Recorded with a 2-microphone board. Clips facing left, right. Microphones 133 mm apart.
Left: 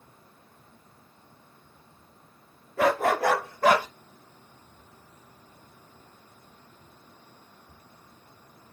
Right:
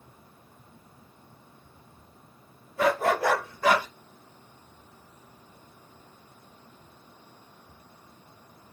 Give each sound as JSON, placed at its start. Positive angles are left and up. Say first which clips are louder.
{"t": 2.8, "sound": "a dog barking", "louder": "left 1 dB", "side_deg": 65, "distance_m": 1.9}